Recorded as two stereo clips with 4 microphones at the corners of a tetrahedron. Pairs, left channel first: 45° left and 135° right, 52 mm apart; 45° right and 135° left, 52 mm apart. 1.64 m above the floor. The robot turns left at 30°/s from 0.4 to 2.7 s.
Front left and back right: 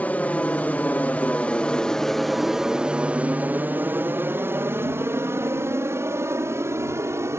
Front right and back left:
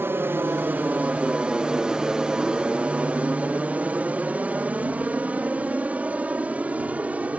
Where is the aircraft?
100° left; by 7.4 s 165° right.